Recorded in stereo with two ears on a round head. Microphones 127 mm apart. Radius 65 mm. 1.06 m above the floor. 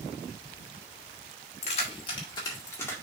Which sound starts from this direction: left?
Keys jangling, at 1.6 s.